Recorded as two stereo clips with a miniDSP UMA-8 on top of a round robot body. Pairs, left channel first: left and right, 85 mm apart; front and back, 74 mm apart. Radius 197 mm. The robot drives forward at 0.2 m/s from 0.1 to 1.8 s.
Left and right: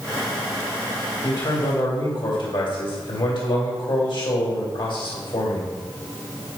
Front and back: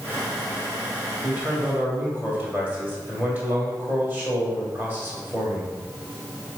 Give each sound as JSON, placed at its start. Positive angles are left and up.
{"t": 1.2, "sound": "a man speaking", "azimuth_deg": 110, "distance_m": 2.5}